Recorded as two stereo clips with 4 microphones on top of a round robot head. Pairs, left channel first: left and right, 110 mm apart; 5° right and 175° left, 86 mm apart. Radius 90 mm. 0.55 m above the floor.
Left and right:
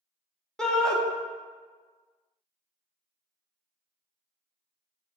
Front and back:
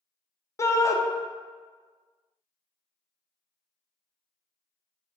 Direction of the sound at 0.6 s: 10° left.